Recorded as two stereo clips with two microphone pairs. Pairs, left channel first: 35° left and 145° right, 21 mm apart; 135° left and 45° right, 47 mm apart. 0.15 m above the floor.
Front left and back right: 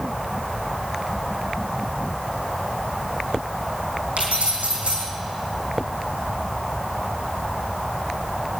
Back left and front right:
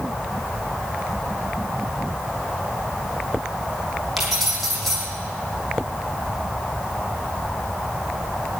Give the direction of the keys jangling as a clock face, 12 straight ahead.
5 o'clock.